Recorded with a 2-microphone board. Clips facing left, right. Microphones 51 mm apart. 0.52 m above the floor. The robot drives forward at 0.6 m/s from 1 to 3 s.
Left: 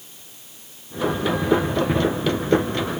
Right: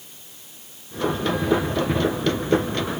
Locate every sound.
Only background noise.